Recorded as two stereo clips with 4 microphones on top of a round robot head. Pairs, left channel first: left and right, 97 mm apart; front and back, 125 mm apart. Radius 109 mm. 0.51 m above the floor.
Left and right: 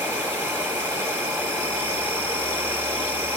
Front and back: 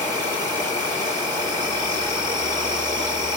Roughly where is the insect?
Behind right.